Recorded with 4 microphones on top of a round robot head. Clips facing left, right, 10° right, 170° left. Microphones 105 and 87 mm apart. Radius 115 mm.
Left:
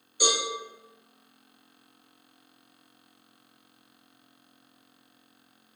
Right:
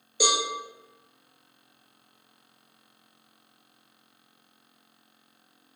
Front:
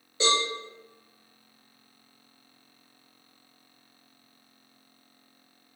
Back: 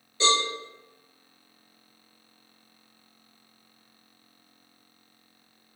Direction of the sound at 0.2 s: 90° right.